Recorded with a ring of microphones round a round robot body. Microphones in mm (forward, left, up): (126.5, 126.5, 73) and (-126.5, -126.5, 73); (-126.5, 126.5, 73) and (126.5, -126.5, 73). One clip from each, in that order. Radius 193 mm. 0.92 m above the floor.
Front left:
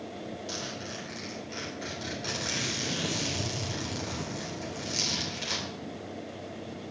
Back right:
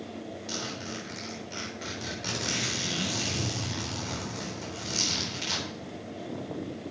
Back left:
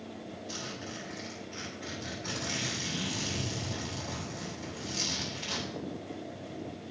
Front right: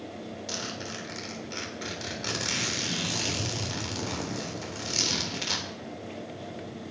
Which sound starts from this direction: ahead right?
A zipper, at 0.5 s.